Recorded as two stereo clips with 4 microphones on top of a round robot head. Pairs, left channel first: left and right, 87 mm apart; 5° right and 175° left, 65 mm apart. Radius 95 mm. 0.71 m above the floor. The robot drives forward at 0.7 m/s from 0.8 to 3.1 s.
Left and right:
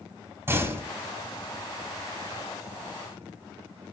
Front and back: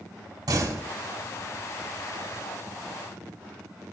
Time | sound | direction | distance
0.5 | a door slam | 155° right | 5 m